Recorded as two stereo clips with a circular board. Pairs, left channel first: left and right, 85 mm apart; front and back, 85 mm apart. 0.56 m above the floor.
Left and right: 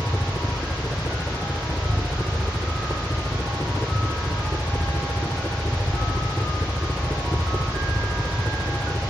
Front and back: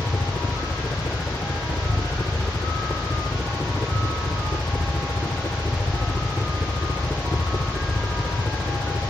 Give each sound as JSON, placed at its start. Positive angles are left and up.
{"t": 0.0, "sound": "a helicopter", "azimuth_deg": 40}